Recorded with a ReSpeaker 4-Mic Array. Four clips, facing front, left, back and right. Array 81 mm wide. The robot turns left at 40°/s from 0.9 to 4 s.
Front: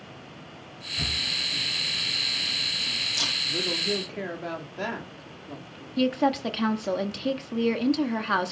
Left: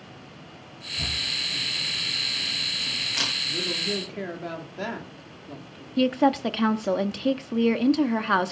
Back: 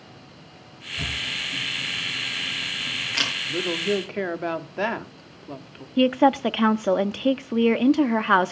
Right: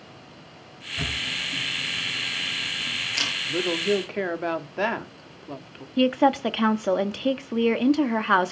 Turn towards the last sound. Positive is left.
turn(degrees=-160)